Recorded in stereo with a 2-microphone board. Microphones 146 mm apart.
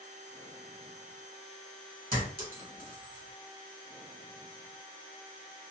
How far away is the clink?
About 1.6 m.